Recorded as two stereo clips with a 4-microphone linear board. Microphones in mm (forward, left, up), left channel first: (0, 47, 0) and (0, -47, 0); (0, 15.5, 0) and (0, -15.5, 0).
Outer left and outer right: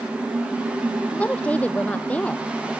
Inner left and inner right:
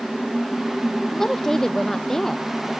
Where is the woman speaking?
15° left (ahead or behind).